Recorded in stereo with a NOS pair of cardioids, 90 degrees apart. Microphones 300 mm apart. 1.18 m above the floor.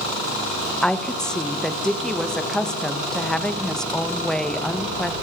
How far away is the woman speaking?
About 0.7 m.